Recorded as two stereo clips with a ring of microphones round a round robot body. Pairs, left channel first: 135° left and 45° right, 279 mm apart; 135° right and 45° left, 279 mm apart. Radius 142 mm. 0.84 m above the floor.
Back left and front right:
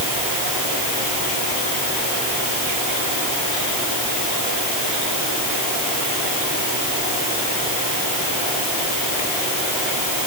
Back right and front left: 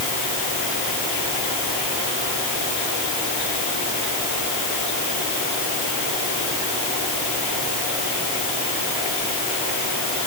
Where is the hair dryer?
I don't hear a hair dryer.